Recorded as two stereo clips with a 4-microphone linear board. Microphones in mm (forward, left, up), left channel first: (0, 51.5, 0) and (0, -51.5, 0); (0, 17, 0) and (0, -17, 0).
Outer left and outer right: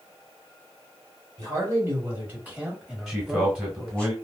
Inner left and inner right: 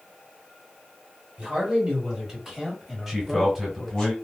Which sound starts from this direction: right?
A man speaking, at 1.4 s.